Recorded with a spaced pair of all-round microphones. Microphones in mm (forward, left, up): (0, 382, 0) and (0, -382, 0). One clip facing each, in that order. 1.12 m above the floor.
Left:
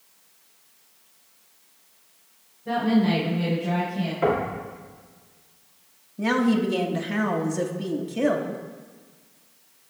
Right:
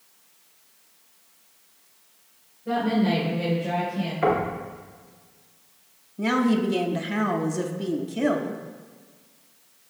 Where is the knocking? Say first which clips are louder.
Even; 65° left (ahead or behind), 2.5 m.